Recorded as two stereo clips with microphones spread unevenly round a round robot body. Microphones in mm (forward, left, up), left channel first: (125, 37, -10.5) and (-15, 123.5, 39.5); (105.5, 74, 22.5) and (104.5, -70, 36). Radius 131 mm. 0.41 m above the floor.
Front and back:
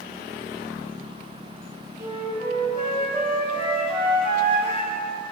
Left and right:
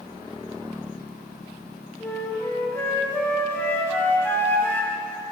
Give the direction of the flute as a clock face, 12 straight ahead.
11 o'clock.